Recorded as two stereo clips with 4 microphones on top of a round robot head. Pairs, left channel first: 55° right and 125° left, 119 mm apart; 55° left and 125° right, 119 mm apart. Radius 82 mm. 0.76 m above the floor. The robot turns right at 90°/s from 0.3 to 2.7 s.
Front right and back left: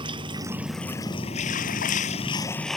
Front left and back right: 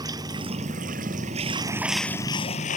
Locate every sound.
0.0 s running water: 175° left; by 2.8 s 30° left